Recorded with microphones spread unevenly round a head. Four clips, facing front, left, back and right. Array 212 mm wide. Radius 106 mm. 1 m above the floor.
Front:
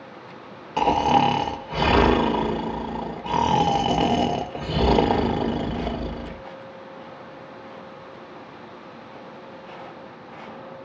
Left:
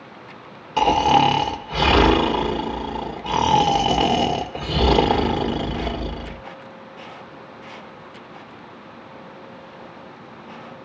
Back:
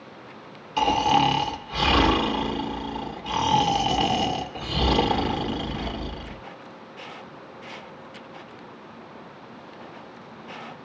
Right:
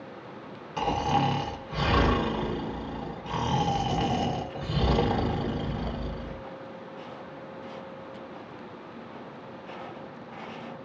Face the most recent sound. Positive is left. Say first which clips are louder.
# left 10 dB, front 2 dB
turn(degrees=50)